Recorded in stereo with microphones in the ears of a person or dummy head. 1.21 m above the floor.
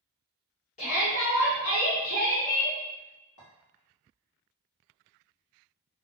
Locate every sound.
0.8 s a shout: 30° left (ahead or behind), 1.0 m
3.4 s a clink: 65° left (ahead or behind), 1.1 m